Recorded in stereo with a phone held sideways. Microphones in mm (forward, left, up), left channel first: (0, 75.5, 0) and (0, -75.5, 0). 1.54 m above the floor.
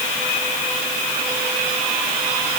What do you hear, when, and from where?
Only background noise.